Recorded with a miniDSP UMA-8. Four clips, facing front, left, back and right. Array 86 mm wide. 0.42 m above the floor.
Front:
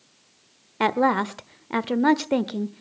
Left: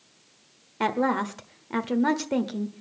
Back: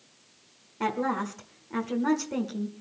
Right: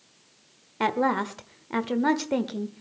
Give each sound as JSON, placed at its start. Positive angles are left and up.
{"t": 0.8, "sound": "a woman speaking", "azimuth_deg": -5, "distance_m": 1.1}